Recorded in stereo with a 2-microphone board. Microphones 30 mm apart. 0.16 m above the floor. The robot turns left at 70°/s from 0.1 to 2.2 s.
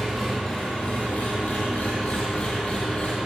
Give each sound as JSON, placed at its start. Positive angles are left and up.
{"t": 0.0, "sound": "an engine running", "azimuth_deg": -170, "distance_m": 3.0}